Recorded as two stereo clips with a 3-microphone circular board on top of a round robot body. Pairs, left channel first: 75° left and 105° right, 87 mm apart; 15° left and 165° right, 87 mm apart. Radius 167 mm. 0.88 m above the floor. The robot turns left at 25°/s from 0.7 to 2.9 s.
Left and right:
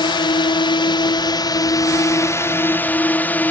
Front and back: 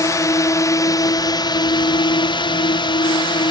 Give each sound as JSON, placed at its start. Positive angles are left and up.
{"t": 0.0, "sound": "a drone", "azimuth_deg": 60}